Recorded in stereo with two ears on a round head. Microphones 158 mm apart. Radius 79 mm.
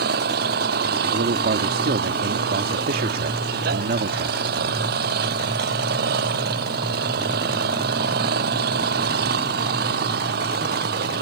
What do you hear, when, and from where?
0.0 s an engine running: 60° right (ahead or behind)
1.1 s a man speaking: 55° right (ahead or behind)